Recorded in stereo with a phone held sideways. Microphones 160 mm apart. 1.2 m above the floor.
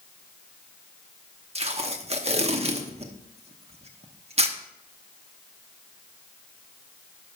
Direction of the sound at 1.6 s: 40° right (ahead or behind).